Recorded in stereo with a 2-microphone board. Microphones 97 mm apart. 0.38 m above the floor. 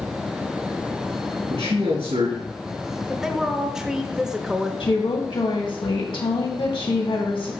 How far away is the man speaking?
About 4 m.